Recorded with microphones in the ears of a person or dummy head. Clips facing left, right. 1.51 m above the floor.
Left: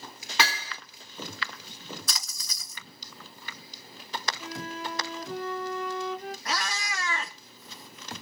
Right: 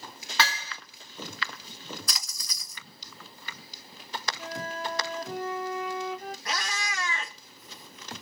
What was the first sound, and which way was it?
Hammering, 20° left (ahead or behind).